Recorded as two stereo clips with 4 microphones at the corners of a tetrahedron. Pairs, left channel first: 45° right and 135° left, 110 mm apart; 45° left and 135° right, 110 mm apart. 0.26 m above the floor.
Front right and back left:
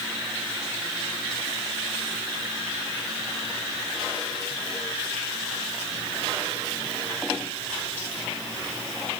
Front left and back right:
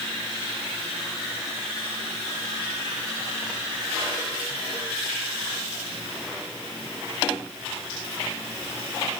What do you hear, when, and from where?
Only background noise.